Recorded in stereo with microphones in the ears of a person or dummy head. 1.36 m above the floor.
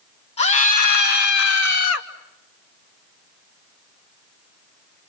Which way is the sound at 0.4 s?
35° left (ahead or behind).